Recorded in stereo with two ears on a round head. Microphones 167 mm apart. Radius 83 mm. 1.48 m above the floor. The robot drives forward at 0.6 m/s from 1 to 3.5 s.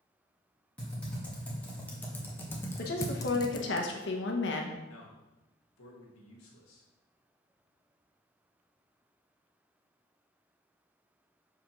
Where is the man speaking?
85° left, 1.8 m.